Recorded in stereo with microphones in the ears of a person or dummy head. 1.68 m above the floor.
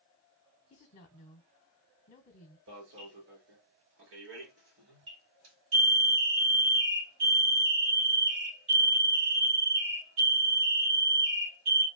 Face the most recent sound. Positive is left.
turn(degrees=-65)  # may be behind; listen again after turning